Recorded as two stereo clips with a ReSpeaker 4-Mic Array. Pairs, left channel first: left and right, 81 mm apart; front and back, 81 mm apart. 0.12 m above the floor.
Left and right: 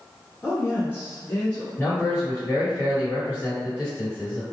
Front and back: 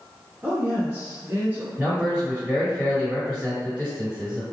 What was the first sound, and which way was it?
A woman speaking, 125° left.